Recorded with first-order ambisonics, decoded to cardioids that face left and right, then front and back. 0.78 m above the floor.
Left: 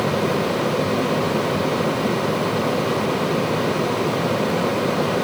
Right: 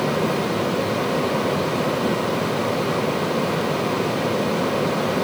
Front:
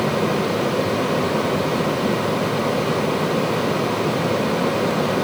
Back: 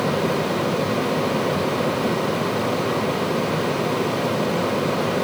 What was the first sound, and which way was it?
Only background noise.